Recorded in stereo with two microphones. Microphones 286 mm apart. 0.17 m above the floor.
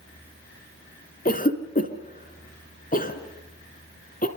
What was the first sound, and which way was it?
A cough, 30° left (ahead or behind).